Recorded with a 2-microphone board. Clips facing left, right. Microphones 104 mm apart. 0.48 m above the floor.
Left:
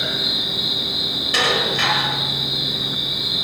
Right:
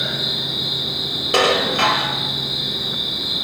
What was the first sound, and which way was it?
An insect, 80° left.